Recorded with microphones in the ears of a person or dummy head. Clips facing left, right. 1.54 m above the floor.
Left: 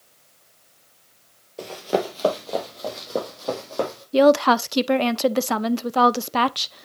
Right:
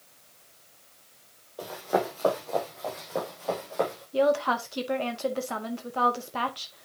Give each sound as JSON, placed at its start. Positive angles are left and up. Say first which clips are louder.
{"t": 1.6, "sound": "running footsteps", "louder": "left 4 dB", "side_deg": 45, "distance_m": 2.5}
{"t": 4.1, "sound": "a woman speaking", "louder": "left 9 dB", "side_deg": 85, "distance_m": 0.6}